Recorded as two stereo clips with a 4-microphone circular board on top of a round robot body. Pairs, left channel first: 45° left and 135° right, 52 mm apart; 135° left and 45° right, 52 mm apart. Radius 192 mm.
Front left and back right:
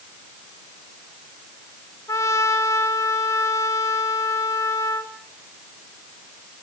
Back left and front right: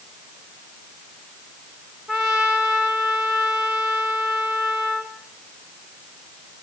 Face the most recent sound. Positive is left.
turn(degrees=40)